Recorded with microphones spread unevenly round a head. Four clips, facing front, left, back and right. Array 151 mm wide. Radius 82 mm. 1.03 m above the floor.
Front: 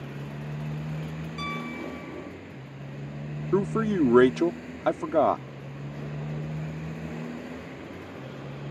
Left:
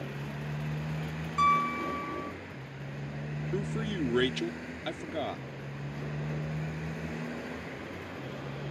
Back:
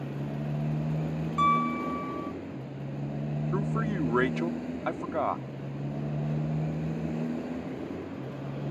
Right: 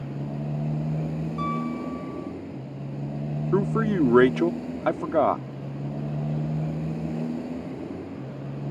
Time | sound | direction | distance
0.0 | a motorcycle | 120° right | ?
1.4 | a piano | 135° left | ?
3.5 | a man speaking | 55° right | ?